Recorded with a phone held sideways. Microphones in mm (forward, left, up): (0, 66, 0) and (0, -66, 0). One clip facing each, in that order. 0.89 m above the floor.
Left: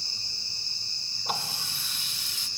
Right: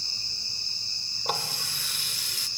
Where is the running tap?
75° right (ahead or behind), 2 m.